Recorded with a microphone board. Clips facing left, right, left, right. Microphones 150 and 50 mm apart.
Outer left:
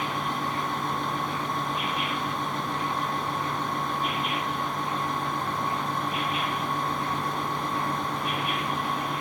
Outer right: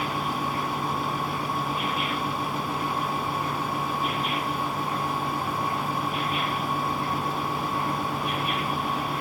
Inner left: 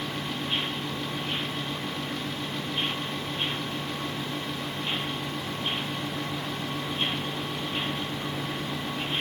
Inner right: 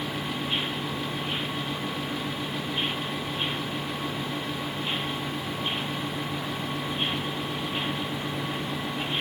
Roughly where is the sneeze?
I don't hear a sneeze.